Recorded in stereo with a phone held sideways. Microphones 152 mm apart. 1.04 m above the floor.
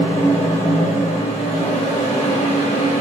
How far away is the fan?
About 1.4 m.